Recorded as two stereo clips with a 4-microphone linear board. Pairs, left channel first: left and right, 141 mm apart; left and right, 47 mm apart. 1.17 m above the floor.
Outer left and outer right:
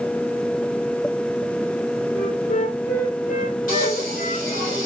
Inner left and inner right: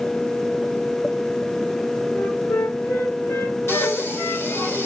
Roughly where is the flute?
Left.